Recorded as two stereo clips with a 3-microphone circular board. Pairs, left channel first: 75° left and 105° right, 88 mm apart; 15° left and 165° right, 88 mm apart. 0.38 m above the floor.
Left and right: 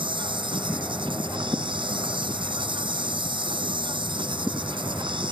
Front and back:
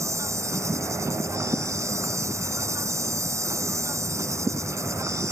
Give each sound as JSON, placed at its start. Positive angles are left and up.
{"t": 0.0, "sound": "an insect", "azimuth_deg": -115}